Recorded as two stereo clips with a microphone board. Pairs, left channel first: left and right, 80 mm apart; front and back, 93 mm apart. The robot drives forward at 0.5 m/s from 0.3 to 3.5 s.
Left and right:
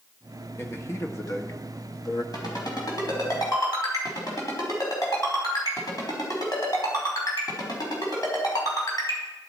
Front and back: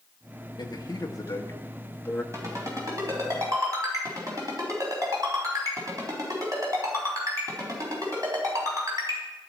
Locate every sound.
0.6 s a man speaking: 35° left, 1.5 m; by 2.2 s 70° left, 1.1 m
2.3 s a ringtone: 125° left, 3.5 m; by 9.2 s 130° left, 4 m